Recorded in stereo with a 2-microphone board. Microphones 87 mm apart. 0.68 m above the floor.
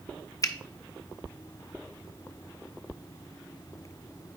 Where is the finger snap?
40° left (ahead or behind), 0.6 m.